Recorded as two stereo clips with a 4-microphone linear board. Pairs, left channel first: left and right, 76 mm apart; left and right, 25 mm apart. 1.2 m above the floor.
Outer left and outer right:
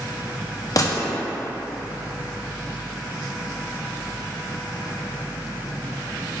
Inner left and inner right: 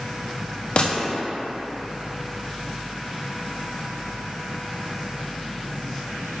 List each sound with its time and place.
0.8 s a gunshot: 45° left (ahead or behind), 0.5 m